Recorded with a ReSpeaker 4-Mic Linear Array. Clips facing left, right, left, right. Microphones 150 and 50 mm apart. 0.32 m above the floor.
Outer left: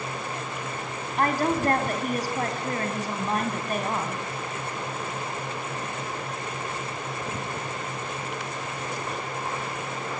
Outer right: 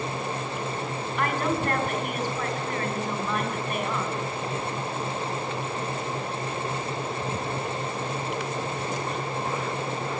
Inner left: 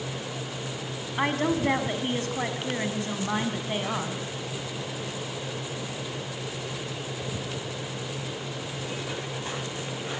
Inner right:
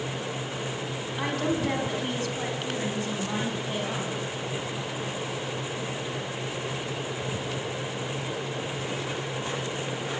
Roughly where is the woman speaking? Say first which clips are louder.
Outer left 3 dB, inner left 3 dB; left.